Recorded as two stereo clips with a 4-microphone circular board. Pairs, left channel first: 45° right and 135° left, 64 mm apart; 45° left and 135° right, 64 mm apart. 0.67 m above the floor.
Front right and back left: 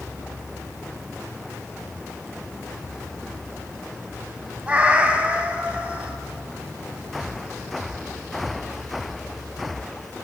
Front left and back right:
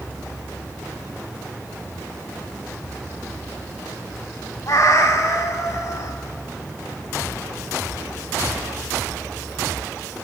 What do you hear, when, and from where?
4.7 s a cat meowing: 70° left, 0.9 m